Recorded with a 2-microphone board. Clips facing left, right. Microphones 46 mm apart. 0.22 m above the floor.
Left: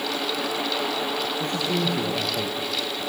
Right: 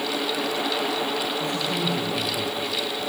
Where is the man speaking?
40° left (ahead or behind), 3.5 m.